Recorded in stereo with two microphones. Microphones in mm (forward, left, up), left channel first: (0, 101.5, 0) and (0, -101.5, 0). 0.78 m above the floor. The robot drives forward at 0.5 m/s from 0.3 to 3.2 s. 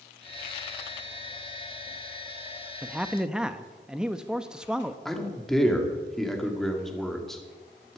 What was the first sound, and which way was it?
A man speaking, 5° right (ahead or behind).